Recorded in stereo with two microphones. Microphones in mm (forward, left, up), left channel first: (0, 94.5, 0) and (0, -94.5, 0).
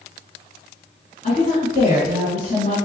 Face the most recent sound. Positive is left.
turn(degrees=40)  # may be behind; listen again after turning